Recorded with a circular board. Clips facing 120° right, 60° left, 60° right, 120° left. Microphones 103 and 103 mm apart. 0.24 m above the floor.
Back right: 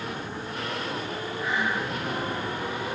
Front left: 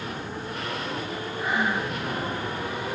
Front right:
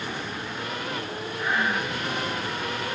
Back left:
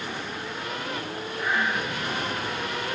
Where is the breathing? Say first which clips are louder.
Front left 2 dB, even; 30° left, 4 m.